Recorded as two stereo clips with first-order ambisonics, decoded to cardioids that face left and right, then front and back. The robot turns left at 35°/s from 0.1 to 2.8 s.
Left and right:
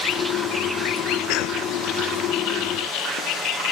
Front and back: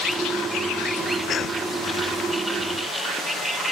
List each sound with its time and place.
1.3 s a cough: 65° left, 0.6 m; by 1.6 s 55° left, 0.6 m